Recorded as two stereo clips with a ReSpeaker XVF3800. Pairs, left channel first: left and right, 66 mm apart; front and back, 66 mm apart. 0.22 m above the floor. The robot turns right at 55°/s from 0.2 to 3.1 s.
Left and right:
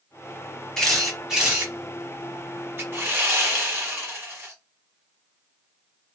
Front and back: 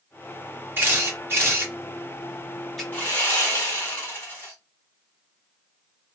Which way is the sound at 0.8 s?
165° left.